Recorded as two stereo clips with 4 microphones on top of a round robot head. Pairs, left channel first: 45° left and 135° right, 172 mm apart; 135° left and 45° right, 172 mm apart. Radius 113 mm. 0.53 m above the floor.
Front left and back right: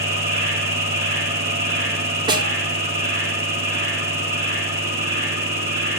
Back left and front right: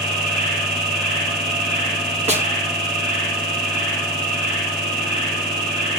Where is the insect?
65° right, 4 m.